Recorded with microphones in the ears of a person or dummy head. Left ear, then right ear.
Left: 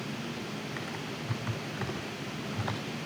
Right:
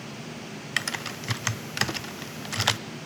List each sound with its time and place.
0.8 s typing on a keyboard: 75° right (ahead or behind), 0.7 m